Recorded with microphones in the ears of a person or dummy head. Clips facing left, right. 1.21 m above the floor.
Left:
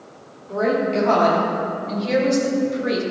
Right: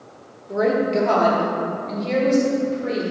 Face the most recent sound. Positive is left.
turn(degrees=20)  # may be behind; listen again after turning